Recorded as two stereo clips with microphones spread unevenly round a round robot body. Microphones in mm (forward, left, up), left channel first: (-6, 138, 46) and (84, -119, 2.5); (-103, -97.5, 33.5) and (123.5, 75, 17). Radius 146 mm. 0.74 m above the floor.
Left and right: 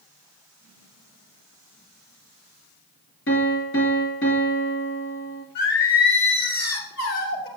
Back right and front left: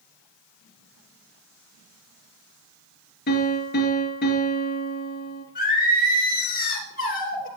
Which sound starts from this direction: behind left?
Singing, at 5.5 s.